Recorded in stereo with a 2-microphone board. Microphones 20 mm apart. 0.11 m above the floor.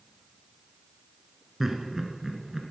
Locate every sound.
1.6 s laughter: 15° right (ahead or behind), 1.1 m